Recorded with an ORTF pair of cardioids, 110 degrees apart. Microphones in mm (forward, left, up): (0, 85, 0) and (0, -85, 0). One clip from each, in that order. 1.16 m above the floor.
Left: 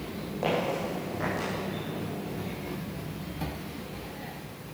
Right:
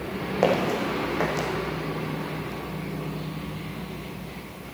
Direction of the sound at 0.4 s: 65° right.